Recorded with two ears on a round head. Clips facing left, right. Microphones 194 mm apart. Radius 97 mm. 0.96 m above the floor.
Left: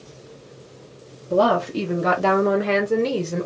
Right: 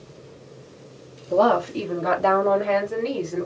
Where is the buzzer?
No buzzer in this recording.